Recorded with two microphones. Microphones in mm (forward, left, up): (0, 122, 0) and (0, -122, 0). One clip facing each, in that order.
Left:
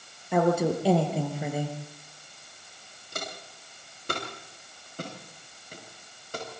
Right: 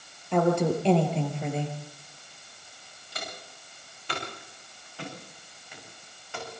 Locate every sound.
0.3 s a woman speaking: 5° left (ahead or behind), 5 m
3.1 s footsteps: 50° left (ahead or behind), 9.5 m; by 6.6 s 40° left (ahead or behind), 8 m